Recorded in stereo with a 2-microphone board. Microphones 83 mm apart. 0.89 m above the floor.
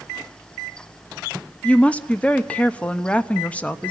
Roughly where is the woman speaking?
Centre.